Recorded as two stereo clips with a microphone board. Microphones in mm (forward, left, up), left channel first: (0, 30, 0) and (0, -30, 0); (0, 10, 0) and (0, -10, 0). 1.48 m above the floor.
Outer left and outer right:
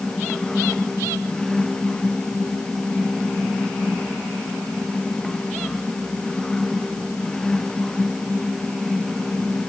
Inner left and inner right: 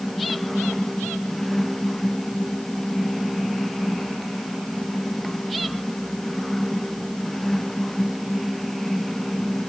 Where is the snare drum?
I don't hear a snare drum.